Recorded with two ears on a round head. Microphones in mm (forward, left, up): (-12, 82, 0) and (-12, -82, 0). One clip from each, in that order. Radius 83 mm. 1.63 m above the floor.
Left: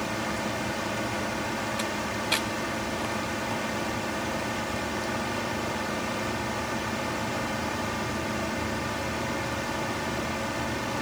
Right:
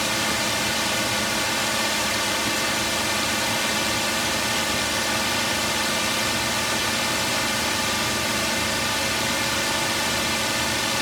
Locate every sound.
0.0 s a drone: 65° right (ahead or behind)